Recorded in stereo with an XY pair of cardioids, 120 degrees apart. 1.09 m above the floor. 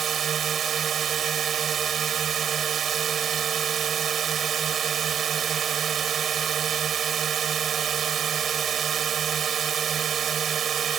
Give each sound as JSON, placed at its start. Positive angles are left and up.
{"t": 0.0, "sound": "a drone", "azimuth_deg": -50}